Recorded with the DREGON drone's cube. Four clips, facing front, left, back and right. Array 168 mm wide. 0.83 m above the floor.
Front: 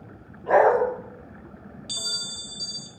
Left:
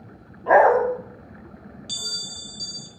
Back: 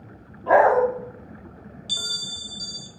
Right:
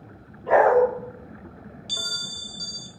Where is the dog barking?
115° left, 1.4 m.